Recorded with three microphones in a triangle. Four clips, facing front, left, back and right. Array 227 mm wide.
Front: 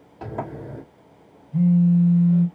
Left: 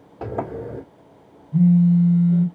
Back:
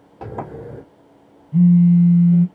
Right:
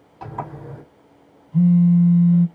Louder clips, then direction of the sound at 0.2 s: Left 4 dB, back 1 dB; 125° left.